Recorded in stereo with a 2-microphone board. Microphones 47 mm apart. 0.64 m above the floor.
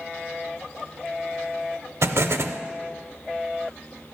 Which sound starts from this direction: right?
An explosion, at 2.0 s.